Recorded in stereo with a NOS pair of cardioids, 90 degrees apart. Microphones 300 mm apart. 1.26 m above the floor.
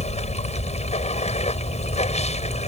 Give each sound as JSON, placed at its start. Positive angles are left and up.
{"t": 0.0, "sound": "running water", "azimuth_deg": 20}